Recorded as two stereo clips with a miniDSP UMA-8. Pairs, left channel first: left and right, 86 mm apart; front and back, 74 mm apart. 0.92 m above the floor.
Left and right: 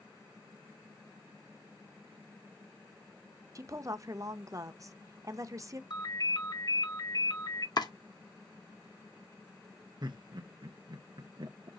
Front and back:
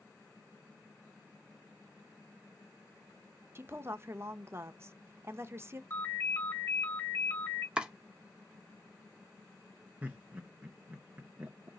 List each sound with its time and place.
3.5 s a woman speaking: 130° right, 0.6 m
5.9 s a ringtone: 55° left, 2.0 m
7.8 s chopping: 110° left, 0.8 m
10.0 s laughter: 115° right, 0.5 m